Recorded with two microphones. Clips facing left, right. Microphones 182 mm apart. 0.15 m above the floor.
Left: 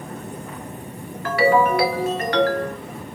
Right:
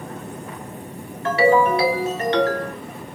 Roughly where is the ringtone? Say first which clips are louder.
Right 1 dB; right.